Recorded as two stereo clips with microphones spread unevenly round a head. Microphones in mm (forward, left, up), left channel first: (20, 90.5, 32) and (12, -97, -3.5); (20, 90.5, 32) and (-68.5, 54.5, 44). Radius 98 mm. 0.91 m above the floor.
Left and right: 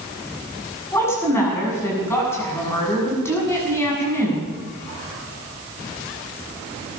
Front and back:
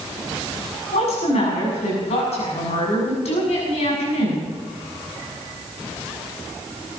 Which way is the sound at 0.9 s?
10° left.